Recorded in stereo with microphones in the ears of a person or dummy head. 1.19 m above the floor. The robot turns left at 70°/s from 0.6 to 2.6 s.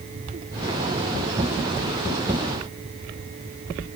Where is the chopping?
No chopping in this recording.